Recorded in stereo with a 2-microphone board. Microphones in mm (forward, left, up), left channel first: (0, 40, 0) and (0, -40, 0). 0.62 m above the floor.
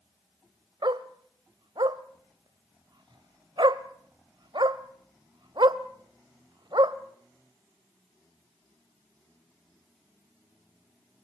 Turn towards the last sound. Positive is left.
turn(degrees=-70)  # may be behind; listen again after turning